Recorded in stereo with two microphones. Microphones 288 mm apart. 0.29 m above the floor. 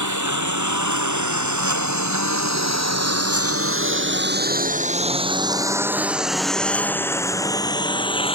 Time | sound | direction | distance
0.0 | a lawn mower | 85° right | ?